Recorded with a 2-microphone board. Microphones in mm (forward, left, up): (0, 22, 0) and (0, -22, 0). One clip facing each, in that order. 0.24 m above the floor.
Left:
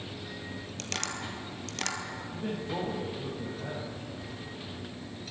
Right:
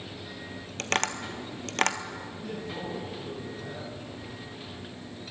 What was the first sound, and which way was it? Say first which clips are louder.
Tapping: right 8 dB; 55° right (ahead or behind).